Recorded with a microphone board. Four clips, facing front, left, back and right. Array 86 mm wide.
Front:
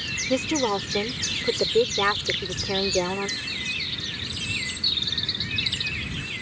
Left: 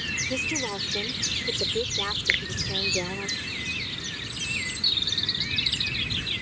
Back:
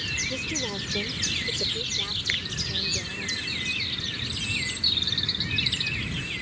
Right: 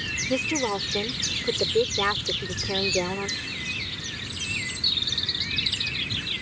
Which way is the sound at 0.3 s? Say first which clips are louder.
Right 6 dB, front 12 dB; 25° right.